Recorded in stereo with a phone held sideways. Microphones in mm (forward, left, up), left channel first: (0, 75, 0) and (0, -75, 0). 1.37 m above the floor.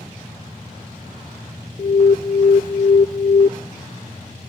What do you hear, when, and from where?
1.8 s an alarm: 55° left (ahead or behind), 0.6 m